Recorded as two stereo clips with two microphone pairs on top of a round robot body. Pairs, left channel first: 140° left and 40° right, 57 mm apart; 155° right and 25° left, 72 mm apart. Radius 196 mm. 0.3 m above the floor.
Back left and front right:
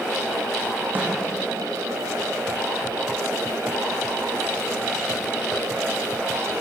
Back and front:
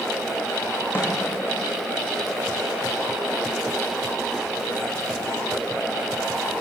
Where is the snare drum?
95° right, 8 m.